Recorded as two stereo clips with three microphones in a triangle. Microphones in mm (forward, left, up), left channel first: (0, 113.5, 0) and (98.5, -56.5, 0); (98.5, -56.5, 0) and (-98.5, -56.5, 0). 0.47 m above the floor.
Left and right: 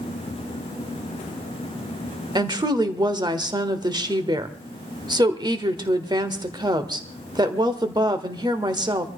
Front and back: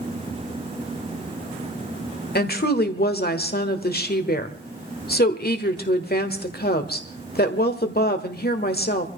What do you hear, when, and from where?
2.4 s a woman speaking: 5° left, 1.5 m